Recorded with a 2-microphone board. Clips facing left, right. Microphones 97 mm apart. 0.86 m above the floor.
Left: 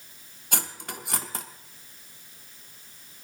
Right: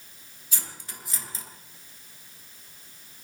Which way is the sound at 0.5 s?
65° left (ahead or behind).